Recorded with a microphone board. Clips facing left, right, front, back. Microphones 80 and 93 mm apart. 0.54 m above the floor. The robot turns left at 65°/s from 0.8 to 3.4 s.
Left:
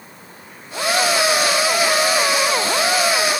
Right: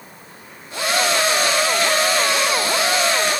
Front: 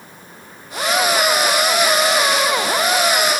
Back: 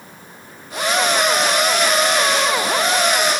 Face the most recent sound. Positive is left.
No sound to turn to.